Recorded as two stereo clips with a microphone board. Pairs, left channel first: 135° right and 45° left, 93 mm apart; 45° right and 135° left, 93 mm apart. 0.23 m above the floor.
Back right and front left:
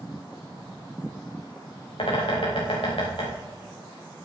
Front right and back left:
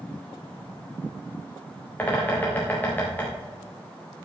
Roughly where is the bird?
Behind right.